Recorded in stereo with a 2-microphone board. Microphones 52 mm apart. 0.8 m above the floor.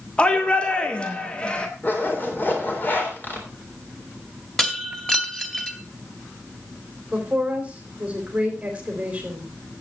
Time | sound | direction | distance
0.2 | a shout | 20° left (ahead or behind) | 1.5 m
1.8 | a zipper | 40° left (ahead or behind) | 3.5 m
4.6 | breaking glass | 10° left (ahead or behind) | 2.0 m
7.1 | a woman speaking | 25° right (ahead or behind) | 3.5 m